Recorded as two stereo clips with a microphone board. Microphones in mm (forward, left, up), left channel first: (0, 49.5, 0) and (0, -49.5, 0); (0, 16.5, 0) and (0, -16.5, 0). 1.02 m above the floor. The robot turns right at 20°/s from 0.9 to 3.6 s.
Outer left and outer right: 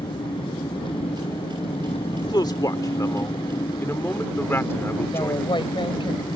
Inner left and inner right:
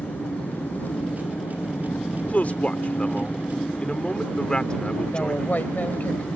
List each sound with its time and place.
0.0 s an engine running: 65° left; by 6.4 s 120° left
2.1 s a man speaking: 55° left (ahead or behind); by 5.5 s 25° left (ahead or behind)
5.1 s a woman speaking: 60° left (ahead or behind)